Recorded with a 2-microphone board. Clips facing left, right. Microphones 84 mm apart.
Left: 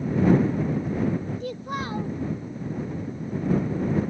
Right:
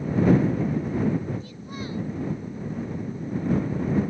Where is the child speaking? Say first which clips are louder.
Left 6 dB; 75° left (ahead or behind).